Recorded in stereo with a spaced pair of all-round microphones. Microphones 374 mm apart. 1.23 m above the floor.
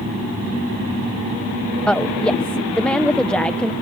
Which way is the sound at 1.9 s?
5° left (ahead or behind).